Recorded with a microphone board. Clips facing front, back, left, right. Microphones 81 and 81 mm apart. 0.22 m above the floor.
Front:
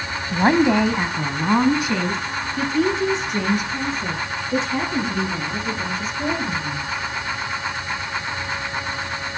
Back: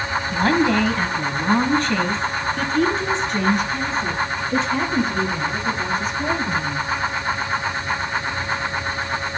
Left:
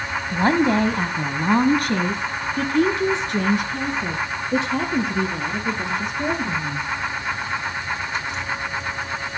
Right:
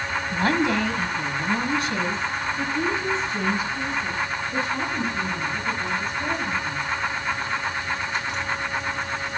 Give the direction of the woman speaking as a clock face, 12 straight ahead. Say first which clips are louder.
Front 2 dB, left 4 dB; 11 o'clock.